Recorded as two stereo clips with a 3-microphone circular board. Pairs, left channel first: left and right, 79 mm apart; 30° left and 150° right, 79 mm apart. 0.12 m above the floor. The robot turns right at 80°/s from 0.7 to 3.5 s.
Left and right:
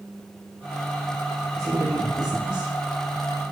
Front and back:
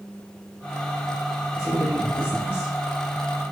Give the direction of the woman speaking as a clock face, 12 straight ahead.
7 o'clock.